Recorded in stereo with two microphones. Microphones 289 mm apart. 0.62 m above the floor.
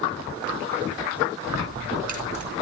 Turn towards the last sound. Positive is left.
turn(degrees=-80)